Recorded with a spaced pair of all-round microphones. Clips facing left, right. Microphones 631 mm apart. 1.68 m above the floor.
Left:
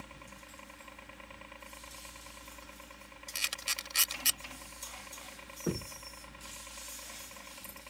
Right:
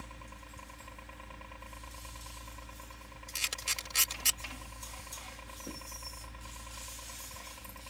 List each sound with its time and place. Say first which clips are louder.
0.0 s a helicopter: even; 65° right (ahead or behind)
3.4 s a camera shutter: right 1 dB; 70° right (ahead or behind)
5.7 s knocking: left 11 dB; 80° left